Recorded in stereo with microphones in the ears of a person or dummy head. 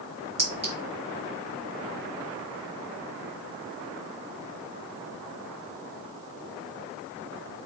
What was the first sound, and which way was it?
A clink, 15° right (ahead or behind).